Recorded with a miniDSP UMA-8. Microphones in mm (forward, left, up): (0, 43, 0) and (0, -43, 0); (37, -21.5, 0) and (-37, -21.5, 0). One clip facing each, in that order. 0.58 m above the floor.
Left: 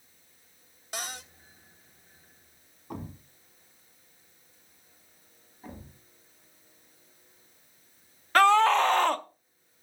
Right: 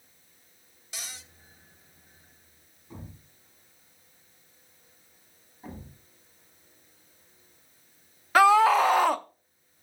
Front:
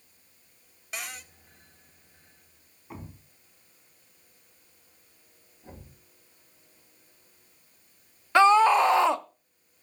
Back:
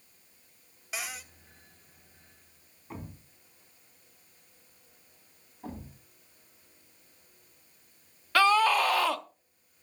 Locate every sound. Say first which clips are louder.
0.9 s a cupboard door: left 7 dB, even; 90° left, 1.0 m
2.9 s a thud: left 6 dB, even; 85° left, 1.7 m
5.6 s a thud: right 2 dB, back 7 dB; 175° right, 8 m
8.3 s a scream: right 2 dB, front 5 dB; 15° right, 0.6 m